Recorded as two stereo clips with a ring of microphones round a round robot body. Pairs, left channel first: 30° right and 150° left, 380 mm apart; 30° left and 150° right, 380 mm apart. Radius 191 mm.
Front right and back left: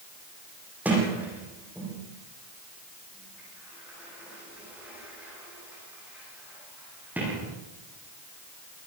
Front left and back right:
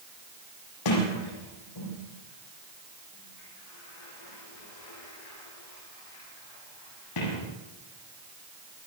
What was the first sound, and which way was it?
A sliding door, 65° left.